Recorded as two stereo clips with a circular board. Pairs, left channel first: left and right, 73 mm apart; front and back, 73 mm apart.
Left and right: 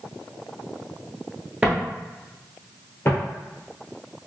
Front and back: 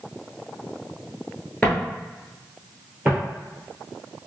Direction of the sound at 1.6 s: 50° right.